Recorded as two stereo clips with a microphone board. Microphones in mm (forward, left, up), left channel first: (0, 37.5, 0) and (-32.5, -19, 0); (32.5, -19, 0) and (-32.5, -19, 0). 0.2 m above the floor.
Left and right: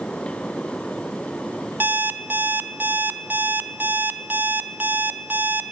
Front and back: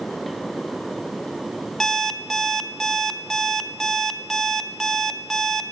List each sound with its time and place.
1.8 s an alarm clock: 80° right, 0.6 m